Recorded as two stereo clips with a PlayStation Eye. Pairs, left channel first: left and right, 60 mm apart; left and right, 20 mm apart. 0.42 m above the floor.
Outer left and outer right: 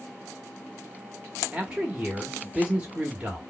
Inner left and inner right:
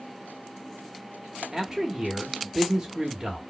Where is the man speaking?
20° right (ahead or behind), 1.0 m.